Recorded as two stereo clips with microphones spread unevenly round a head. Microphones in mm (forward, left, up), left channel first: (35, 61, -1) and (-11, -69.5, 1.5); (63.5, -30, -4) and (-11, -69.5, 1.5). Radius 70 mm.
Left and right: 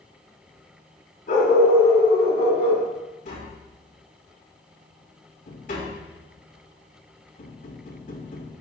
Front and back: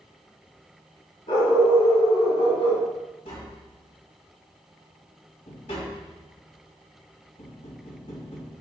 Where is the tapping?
45° left, 2.5 m.